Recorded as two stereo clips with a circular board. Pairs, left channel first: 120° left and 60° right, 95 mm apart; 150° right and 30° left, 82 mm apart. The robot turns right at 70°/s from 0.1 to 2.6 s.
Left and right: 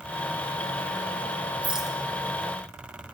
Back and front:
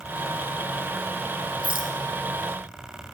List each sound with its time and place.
1.6 s a rattle: 15° left, 0.8 m; by 2.0 s 35° left, 0.8 m